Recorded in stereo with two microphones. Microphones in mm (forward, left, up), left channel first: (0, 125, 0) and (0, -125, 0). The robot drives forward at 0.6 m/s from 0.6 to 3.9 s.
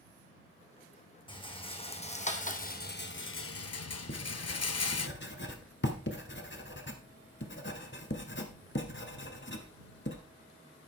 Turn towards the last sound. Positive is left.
turn(degrees=45)  # may be behind; listen again after turning